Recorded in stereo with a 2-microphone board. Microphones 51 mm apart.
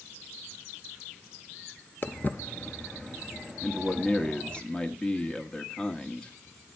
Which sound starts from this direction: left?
Footsteps, at 2.0 s.